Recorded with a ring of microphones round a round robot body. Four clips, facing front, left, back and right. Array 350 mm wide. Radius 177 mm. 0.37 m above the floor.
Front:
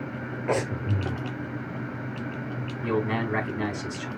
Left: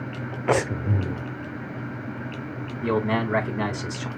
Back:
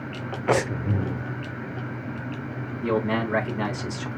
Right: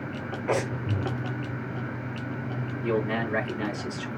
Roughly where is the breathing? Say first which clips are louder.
Left 5 dB, back 4 dB; behind left.